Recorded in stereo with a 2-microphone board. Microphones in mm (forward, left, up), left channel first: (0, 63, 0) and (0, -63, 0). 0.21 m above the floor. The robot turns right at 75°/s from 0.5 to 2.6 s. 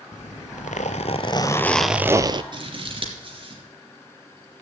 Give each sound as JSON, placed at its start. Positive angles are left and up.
{"t": 0.1, "sound": "a zipper", "azimuth_deg": 80, "distance_m": 0.7}
{"t": 2.5, "sound": "scissors", "side_deg": -40, "distance_m": 3.0}